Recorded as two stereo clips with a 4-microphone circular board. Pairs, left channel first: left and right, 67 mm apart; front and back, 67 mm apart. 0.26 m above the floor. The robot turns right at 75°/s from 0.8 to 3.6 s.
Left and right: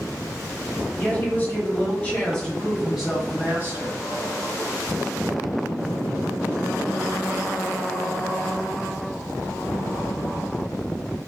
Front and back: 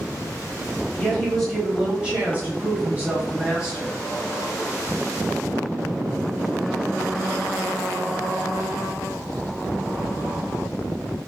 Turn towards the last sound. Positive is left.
turn(degrees=-115)